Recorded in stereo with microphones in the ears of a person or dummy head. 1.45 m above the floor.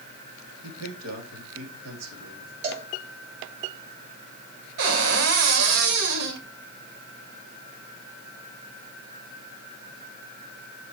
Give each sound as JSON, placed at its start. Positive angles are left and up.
{"t": 0.6, "sound": "a man speaking", "side_deg": -85, "distance_m": 3.0}
{"t": 2.6, "sound": "a cowbell", "side_deg": -40, "distance_m": 3.0}
{"t": 4.8, "sound": "a cupboard door", "side_deg": -65, "distance_m": 2.0}